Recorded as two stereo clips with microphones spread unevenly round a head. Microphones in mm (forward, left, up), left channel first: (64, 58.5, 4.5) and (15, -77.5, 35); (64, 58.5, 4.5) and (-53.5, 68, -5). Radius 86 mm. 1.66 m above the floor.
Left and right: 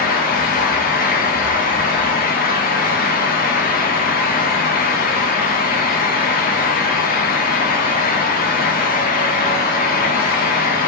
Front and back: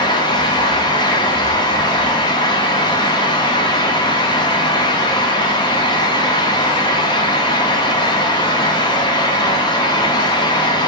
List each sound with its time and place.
0.0 s a fan: 50° left, 0.9 m